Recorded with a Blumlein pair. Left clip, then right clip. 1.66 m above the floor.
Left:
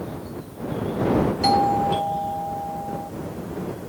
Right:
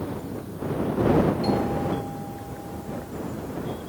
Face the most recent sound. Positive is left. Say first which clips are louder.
# left 7 dB
turn(degrees=55)